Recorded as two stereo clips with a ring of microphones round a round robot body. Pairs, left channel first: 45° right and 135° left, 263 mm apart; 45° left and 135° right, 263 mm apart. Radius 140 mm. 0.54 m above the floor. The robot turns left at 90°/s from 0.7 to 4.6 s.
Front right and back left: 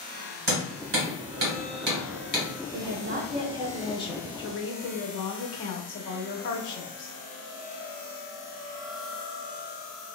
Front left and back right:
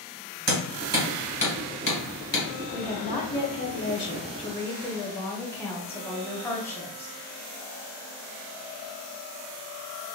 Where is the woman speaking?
135° left, 0.8 m; by 7.1 s 35° right, 0.8 m.